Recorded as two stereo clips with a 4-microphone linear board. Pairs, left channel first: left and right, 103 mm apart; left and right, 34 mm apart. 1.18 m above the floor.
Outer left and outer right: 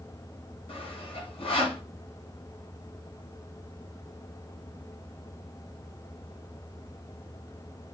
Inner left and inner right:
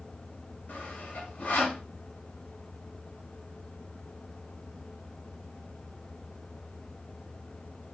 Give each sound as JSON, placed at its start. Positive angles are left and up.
{"t": 0.7, "sound": "sawing", "side_deg": 60, "distance_m": 1.1}